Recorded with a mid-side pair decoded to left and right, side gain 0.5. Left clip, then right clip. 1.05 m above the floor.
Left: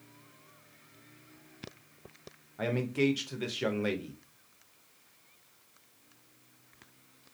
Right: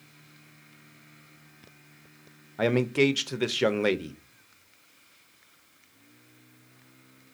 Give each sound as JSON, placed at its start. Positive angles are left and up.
{"t": 2.6, "sound": "a man speaking", "azimuth_deg": -50, "distance_m": 0.6}